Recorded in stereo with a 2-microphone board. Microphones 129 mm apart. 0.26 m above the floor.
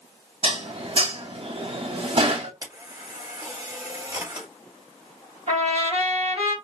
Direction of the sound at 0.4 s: 45° right (ahead or behind).